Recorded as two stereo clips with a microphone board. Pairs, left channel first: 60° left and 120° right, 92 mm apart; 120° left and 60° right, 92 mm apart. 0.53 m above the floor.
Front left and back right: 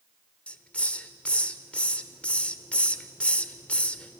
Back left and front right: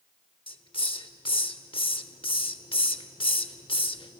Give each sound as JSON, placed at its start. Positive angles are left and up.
{"t": 0.5, "sound": "a hiss", "azimuth_deg": 135, "distance_m": 0.7}